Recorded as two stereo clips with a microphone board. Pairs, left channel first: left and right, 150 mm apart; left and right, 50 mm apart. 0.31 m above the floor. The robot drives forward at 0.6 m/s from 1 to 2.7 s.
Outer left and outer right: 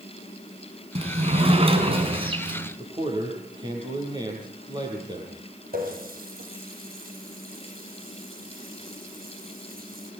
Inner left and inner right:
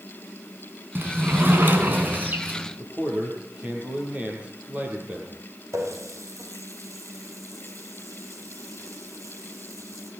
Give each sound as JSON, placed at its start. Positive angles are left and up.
{"t": 0.9, "sound": "a sliding door", "side_deg": -45, "distance_m": 3.5}
{"t": 2.8, "sound": "a man speaking", "side_deg": -30, "distance_m": 9.0}
{"t": 5.7, "sound": "a running tap", "side_deg": -80, "distance_m": 6.0}